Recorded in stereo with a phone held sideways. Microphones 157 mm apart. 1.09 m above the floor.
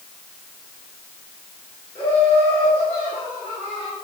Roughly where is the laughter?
Centre.